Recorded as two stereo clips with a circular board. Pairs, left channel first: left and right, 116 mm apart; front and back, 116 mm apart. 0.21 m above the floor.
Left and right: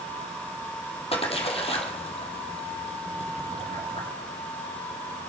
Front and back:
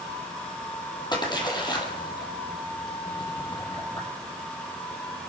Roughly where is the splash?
Ahead left.